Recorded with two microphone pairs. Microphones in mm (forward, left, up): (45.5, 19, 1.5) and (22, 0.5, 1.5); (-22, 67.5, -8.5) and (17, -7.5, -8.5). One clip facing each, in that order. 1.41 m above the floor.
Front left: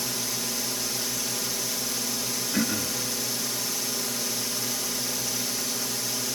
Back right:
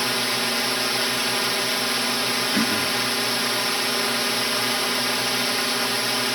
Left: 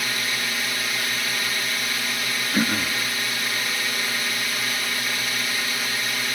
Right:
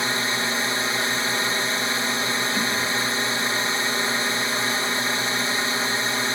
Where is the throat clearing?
140° left.